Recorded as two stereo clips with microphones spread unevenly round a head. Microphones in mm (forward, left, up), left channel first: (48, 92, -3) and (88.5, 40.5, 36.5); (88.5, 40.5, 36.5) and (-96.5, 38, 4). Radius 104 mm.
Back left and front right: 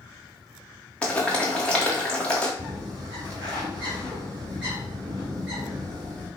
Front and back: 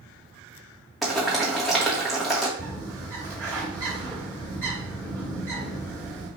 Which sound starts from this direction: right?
A bird, at 2.6 s.